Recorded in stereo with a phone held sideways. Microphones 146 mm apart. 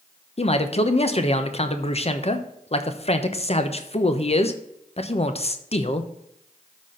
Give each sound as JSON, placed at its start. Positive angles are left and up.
{"t": 0.4, "sound": "a man speaking", "side_deg": 45, "distance_m": 0.9}